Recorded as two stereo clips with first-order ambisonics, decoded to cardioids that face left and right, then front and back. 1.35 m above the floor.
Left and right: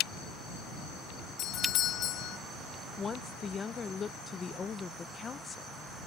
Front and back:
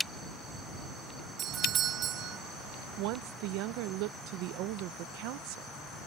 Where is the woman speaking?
160° left.